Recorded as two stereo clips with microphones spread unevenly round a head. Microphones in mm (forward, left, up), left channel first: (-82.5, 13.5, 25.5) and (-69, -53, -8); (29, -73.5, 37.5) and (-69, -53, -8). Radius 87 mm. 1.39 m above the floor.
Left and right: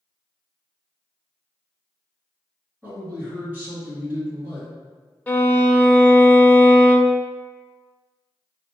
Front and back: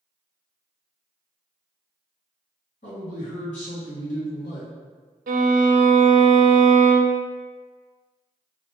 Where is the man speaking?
5° left, 1.8 m.